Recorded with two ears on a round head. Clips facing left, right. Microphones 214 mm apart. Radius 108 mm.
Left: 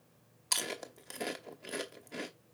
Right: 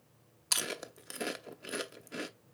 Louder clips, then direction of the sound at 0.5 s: Even; 10° right (ahead or behind).